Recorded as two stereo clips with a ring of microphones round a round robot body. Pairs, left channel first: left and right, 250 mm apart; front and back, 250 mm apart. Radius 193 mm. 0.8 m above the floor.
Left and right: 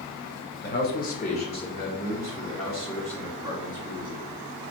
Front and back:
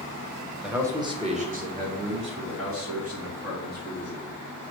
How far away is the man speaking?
About 1.1 m.